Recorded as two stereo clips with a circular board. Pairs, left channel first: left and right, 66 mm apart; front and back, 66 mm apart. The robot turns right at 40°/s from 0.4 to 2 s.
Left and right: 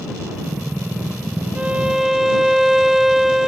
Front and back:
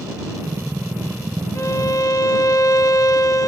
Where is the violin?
25° right; by 3.5 s 5° right.